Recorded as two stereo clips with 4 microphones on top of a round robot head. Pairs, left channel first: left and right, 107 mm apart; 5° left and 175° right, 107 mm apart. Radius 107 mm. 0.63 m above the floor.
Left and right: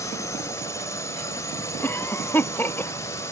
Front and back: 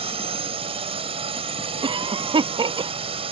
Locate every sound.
0.0 s a drone: 155° left
1.8 s a cough: 160° left